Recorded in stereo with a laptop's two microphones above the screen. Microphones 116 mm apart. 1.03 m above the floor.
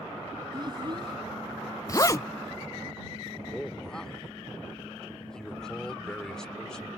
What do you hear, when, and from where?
0.5 s a child speaking: 40° right (ahead or behind)
1.9 s a zipper: 30° left (ahead or behind)
3.5 s a man speaking: 5° left (ahead or behind)